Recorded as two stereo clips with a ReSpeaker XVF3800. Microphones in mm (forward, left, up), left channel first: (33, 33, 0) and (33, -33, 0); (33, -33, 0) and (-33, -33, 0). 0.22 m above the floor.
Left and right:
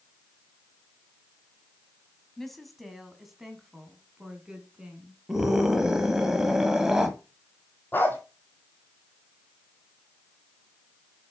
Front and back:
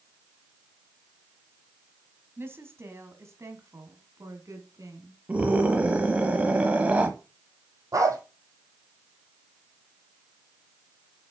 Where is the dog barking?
150° left, 1.8 m.